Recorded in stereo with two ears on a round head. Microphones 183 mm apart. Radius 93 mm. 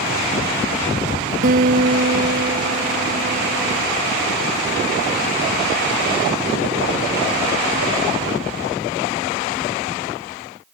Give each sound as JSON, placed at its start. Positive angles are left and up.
{"t": 1.4, "sound": "a guitar", "side_deg": -45}